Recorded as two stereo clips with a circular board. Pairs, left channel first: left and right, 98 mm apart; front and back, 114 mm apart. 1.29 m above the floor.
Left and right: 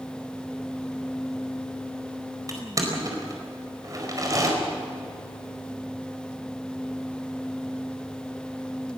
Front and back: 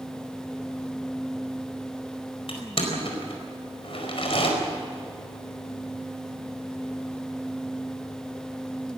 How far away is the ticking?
No ticking in this recording.